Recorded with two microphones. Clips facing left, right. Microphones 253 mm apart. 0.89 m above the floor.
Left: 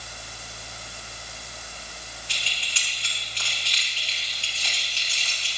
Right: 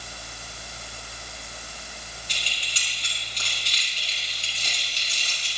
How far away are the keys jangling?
About 6.5 m.